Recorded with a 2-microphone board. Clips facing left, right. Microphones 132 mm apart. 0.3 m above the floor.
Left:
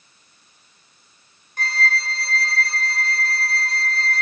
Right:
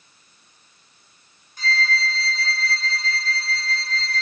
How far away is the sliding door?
I don't hear a sliding door.